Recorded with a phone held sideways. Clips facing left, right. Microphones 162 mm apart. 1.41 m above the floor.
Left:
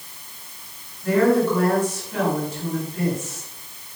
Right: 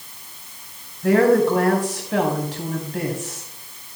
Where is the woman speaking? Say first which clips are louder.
Right 2 dB; 85° right, 5 m.